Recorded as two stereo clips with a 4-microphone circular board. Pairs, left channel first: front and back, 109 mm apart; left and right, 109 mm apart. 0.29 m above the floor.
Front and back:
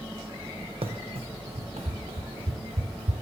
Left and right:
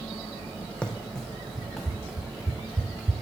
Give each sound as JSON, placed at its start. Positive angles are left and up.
{"t": 0.8, "sound": "running footsteps", "azimuth_deg": 170, "distance_m": 0.6}